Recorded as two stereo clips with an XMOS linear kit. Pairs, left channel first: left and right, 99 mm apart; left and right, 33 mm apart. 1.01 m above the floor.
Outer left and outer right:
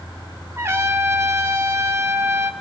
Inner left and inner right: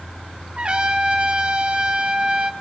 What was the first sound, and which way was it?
A trumpet, 25° right (ahead or behind).